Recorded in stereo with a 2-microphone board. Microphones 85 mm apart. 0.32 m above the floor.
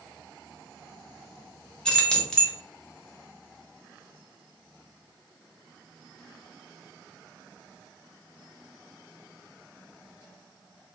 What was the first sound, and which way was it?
Keys jangling, 10° left (ahead or behind).